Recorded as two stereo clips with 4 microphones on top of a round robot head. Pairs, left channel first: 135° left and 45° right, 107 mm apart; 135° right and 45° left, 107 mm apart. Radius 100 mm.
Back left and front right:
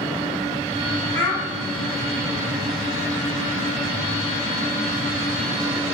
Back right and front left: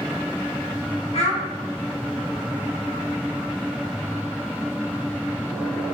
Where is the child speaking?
155° right, 1.4 m.